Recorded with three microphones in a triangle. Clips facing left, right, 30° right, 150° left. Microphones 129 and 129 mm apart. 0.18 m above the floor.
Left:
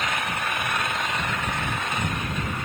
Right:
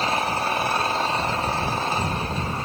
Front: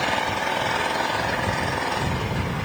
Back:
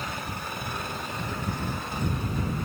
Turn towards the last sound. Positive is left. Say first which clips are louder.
# right 5 dB, front 11 dB
turn(degrees=-30)